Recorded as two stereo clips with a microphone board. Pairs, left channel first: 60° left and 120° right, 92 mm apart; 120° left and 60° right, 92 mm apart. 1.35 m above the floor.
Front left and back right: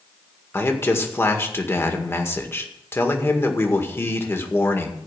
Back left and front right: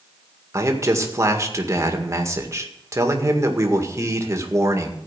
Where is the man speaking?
5° right, 1.9 m.